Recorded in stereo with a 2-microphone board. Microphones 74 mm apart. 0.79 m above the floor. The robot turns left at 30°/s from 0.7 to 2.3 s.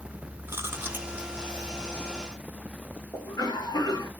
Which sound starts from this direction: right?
Chewing, at 0.5 s.